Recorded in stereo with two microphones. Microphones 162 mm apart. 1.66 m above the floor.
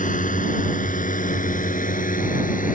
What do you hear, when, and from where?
0.0 s a drone: 60° left (ahead or behind)